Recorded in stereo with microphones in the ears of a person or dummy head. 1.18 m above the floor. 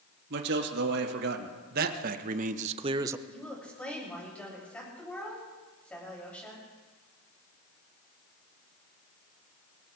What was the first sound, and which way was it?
A man speaking, 60° right (ahead or behind).